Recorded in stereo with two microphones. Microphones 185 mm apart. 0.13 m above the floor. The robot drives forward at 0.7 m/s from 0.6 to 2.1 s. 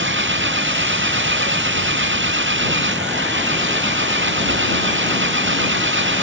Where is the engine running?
80° right.